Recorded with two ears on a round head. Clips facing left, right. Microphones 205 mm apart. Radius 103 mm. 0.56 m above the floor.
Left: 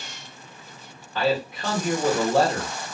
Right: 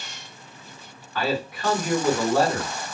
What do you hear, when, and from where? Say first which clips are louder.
1.1 s a man speaking: left 2 dB; 25° left (ahead or behind), 1.6 m